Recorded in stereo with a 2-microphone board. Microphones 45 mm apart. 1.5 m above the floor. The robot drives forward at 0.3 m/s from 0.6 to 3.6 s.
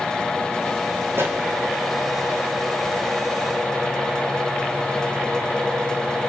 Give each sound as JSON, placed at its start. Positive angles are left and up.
{"t": 1.1, "sound": "a pop", "side_deg": -60, "distance_m": 2.5}